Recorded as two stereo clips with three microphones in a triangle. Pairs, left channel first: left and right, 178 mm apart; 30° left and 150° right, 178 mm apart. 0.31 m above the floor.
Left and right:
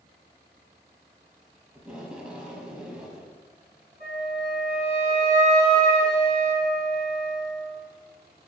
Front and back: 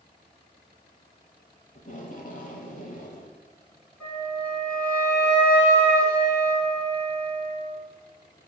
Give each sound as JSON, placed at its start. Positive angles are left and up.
{"t": 1.8, "sound": "tape being pulled", "azimuth_deg": -5, "distance_m": 1.0}
{"t": 4.0, "sound": "a flute", "azimuth_deg": -50, "distance_m": 2.0}